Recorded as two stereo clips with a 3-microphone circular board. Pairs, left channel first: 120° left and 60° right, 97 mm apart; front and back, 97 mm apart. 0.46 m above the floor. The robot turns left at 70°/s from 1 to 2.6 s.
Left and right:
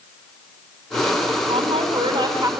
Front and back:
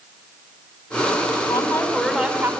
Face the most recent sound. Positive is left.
turn(degrees=-120)